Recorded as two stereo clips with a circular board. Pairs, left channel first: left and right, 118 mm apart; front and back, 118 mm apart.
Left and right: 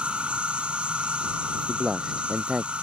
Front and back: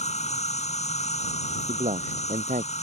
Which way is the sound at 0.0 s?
10° right.